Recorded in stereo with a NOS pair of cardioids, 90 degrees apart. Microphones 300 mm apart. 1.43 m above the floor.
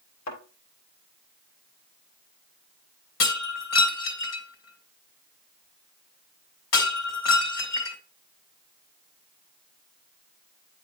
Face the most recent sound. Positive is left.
turn(degrees=60)